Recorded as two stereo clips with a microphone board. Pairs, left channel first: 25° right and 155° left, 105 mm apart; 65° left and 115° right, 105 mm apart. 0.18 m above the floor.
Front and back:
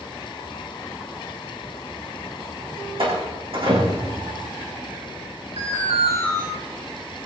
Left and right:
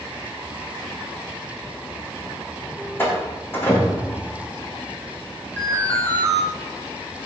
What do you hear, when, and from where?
3.0 s a door slam: 135° left, 8.5 m
5.6 s an alarm: 140° left, 8.5 m